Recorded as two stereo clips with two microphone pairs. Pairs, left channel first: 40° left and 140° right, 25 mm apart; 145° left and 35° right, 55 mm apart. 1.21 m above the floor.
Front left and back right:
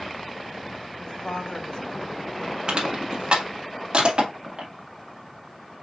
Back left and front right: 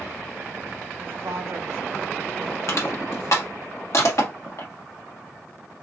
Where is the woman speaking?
Straight ahead, 1.6 m; by 2.6 s 10° right, 2.5 m.